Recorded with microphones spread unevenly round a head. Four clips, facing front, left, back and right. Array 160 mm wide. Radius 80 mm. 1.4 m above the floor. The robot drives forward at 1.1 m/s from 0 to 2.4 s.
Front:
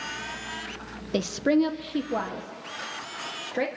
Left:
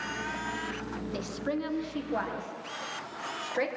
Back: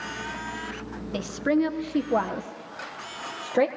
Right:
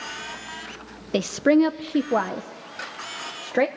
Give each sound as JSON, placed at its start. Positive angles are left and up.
{"t": 1.1, "sound": "a woman speaking", "azimuth_deg": -65, "distance_m": 1.3}